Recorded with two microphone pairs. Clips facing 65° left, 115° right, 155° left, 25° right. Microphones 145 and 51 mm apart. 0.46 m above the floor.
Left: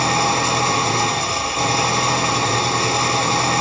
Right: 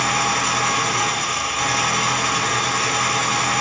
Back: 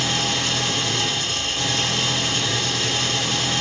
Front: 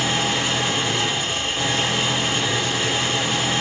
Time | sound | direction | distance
0.0 | an engine running | 40° left | 0.9 m